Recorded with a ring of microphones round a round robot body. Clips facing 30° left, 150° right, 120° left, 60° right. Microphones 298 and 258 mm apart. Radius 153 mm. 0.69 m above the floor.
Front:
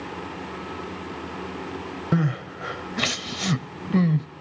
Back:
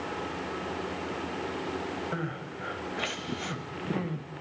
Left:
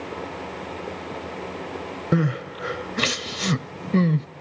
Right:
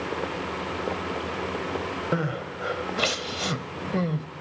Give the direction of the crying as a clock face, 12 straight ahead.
10 o'clock.